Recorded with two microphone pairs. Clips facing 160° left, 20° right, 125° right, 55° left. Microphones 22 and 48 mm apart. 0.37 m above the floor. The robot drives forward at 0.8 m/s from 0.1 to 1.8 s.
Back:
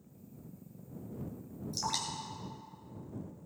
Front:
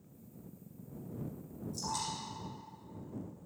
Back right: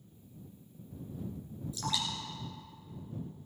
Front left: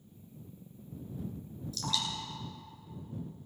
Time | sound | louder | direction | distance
1.7 | dripping | back 3 dB, even | 165° left | 3 m